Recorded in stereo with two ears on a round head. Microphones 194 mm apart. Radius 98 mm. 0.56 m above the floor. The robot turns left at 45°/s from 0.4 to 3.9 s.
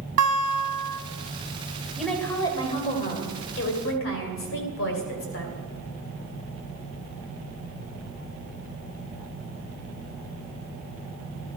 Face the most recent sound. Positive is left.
turn(degrees=95)